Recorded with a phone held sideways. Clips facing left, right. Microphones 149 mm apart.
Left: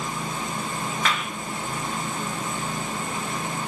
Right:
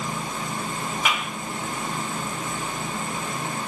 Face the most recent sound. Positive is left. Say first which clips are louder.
# right 1 dB
turn(degrees=-10)  # may be behind; listen again after turning